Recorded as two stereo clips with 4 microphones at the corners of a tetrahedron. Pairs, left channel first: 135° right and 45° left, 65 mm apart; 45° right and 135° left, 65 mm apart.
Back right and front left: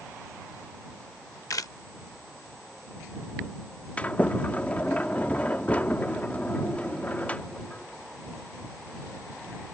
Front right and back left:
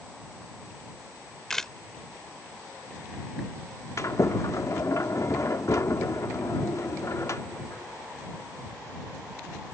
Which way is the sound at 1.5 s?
130° right.